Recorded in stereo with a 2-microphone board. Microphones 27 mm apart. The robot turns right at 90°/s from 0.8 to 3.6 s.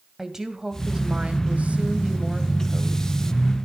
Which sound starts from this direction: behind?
A woman speaking, at 0.2 s.